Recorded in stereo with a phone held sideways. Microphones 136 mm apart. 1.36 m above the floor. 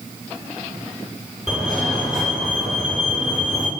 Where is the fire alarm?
5° right (ahead or behind), 6.5 m.